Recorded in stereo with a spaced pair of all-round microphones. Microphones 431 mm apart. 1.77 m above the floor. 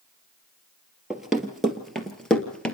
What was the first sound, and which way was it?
Running footsteps, centre (ahead or behind).